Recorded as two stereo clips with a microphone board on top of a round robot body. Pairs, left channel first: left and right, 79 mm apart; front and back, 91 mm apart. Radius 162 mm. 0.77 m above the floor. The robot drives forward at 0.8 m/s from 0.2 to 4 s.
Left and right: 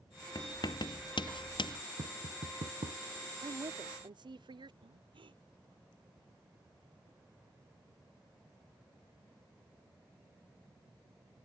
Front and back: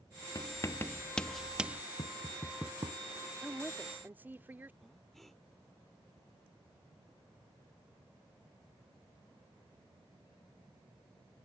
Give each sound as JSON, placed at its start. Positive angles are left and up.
{"t": 0.3, "sound": "writing", "azimuth_deg": 50}
{"t": 2.0, "sound": "tapping", "azimuth_deg": -50}
{"t": 3.4, "sound": "a woman speaking", "azimuth_deg": -95}
{"t": 4.8, "sound": "breathing", "azimuth_deg": -90}